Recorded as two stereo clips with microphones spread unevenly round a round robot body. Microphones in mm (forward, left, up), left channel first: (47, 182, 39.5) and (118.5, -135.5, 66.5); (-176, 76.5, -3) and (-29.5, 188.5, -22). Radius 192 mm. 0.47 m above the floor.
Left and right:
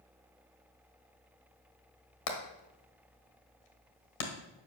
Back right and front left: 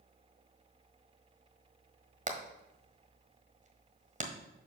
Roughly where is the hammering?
Left.